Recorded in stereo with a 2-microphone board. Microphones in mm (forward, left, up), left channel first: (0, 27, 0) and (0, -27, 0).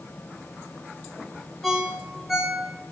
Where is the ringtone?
Centre (ahead or behind), 1.0 m.